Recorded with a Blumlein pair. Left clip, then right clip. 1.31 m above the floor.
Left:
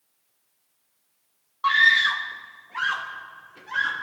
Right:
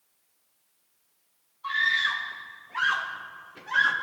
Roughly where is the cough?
I don't hear a cough.